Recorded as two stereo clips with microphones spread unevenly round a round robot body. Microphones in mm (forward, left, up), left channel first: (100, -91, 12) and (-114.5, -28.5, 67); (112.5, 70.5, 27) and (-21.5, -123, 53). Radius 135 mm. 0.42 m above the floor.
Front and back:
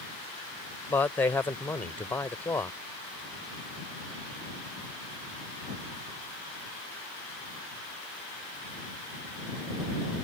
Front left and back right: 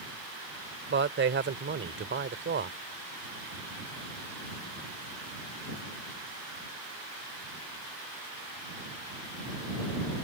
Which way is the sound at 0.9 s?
85° right.